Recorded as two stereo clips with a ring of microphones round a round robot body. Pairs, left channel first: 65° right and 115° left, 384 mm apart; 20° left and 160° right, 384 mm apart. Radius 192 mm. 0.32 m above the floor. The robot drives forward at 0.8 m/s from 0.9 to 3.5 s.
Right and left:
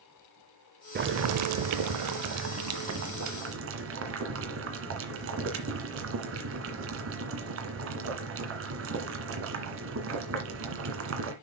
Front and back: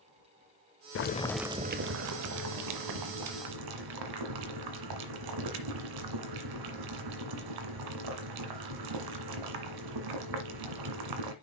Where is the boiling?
60° left, 0.6 m; by 11.3 s 170° left, 1.9 m.